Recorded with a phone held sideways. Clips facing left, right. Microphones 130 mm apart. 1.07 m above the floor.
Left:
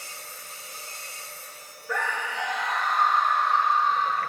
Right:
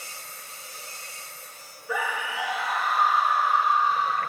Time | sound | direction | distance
1.9 | a scream | 5° right (ahead or behind) | 1.9 m